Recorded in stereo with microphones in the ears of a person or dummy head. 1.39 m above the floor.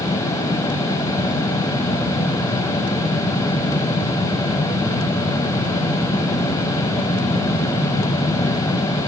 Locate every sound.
Only background noise.